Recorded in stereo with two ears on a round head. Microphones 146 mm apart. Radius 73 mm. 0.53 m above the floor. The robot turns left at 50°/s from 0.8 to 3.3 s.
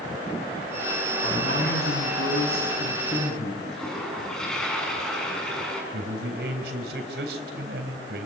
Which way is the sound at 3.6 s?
5° left (ahead or behind).